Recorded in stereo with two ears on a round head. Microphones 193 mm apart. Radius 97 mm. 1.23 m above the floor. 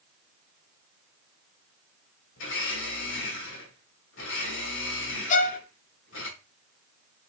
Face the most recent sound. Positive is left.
turn(degrees=35)  # may be behind; listen again after turning